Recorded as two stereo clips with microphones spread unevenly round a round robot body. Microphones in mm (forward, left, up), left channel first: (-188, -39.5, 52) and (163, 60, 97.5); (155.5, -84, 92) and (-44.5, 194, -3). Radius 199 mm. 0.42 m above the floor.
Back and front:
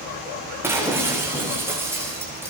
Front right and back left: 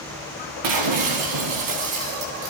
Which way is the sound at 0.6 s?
100° left.